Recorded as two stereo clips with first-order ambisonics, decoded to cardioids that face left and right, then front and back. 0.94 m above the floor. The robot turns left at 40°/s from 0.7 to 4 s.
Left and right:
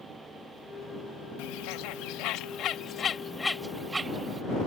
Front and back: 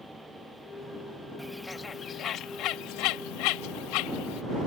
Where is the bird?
90° left; by 4.4 s 15° right.